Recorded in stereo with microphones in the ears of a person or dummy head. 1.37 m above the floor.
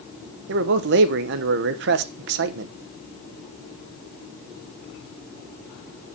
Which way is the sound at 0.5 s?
60° right (ahead or behind).